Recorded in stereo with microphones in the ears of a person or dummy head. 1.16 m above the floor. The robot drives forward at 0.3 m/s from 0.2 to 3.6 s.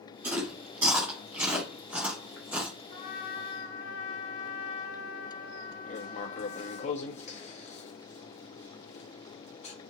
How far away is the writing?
About 0.6 m.